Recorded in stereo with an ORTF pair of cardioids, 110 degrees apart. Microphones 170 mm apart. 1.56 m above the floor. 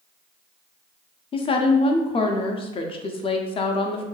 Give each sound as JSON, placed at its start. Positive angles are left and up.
{"t": 1.3, "sound": "a woman speaking", "azimuth_deg": 35, "distance_m": 0.5}